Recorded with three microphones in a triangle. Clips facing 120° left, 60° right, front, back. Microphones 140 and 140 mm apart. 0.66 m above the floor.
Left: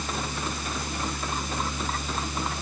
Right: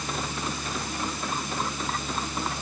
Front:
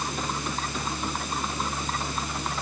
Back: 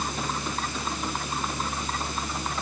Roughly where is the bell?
I don't hear a bell.